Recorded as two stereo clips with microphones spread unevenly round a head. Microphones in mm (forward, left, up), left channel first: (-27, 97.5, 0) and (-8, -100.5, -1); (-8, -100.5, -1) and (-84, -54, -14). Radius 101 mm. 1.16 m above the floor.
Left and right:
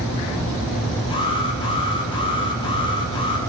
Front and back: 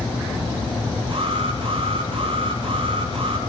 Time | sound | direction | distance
1.1 | an alarm | 160° left | 5 m